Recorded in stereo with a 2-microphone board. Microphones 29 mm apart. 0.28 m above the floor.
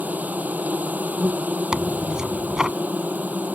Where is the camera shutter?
I don't hear a camera shutter.